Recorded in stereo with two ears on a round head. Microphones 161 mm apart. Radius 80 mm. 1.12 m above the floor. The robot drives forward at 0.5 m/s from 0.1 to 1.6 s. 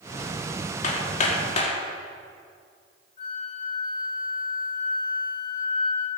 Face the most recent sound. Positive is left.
turn(degrees=35)  # may be behind; listen again after turning